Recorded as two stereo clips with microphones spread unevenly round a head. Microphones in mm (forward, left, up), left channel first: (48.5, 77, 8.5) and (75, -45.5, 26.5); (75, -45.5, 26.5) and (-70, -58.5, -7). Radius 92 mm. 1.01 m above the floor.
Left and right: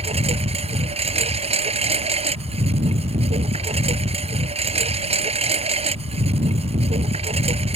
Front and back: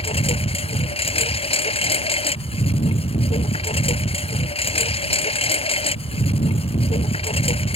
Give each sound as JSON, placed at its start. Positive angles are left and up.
{"t": 0.0, "sound": "a lawn mower", "azimuth_deg": -40}